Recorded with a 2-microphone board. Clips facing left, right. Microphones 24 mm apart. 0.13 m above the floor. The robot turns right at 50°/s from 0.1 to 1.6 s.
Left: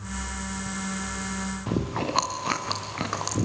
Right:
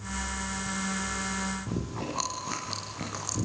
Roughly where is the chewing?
Left.